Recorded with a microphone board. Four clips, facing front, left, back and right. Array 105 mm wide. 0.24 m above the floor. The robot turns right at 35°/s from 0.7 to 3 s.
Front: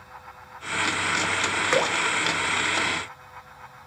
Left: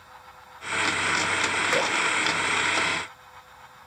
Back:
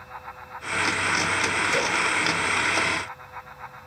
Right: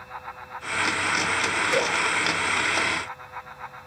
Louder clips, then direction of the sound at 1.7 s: Right 1 dB, front 6 dB; 10° left.